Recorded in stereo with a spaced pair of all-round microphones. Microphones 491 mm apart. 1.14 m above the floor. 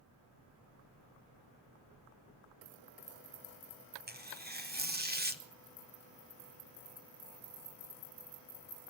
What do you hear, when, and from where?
4.1 s tearing paper: 20° right (ahead or behind), 0.7 m